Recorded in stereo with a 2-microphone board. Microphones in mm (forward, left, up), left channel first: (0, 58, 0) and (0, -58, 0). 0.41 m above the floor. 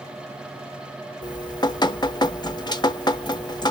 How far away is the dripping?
About 0.5 m.